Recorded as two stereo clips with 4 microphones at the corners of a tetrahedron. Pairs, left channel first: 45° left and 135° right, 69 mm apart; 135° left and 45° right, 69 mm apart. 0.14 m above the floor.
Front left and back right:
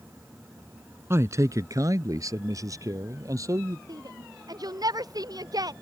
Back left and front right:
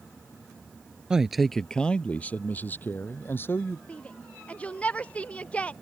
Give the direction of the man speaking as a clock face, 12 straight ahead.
4 o'clock.